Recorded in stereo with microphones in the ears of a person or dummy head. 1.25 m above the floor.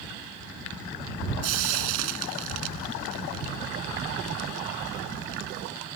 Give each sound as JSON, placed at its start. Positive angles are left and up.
{"t": 1.4, "sound": "frying", "side_deg": -75}